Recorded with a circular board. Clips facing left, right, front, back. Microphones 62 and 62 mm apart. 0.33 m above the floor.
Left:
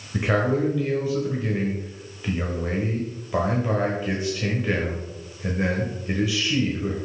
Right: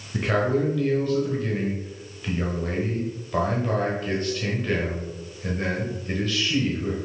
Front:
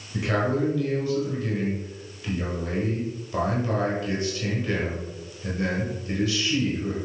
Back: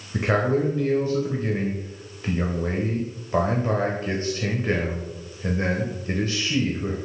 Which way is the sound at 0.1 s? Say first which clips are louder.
Left 1 dB, back 3 dB; 160° left.